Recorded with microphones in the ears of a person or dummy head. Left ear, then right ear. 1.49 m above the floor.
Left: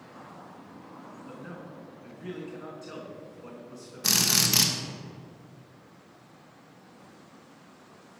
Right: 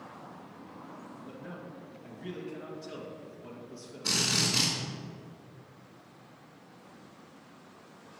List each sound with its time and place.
1.3 s a man speaking: 25° left (ahead or behind), 1.8 m
4.0 s a drill: 60° left (ahead or behind), 1.0 m